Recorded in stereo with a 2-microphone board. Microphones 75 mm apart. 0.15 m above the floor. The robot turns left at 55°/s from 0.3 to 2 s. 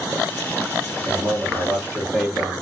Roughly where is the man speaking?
Behind right.